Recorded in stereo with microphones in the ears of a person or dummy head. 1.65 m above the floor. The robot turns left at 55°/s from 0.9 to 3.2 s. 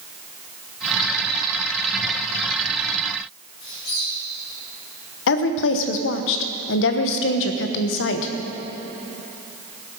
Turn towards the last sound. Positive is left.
turn(degrees=65)  # may be behind; listen again after turning